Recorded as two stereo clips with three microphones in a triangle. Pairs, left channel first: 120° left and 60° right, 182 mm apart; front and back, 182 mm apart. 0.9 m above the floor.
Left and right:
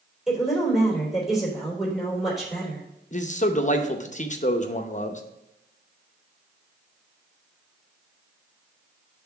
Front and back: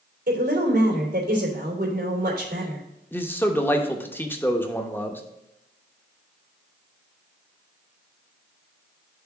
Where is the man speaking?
75° left, 0.8 m.